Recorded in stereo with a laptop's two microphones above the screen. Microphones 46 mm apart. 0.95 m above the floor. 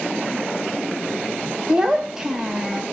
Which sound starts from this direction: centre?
A child speaking, at 1.7 s.